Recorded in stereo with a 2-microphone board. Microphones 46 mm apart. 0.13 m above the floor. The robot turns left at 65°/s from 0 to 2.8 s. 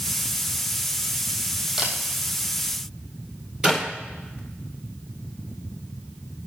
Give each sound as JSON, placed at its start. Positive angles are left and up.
{"t": 1.8, "sound": "a camera shutter", "side_deg": -15, "distance_m": 2.0}
{"t": 3.6, "sound": "a clap", "side_deg": -15, "distance_m": 2.0}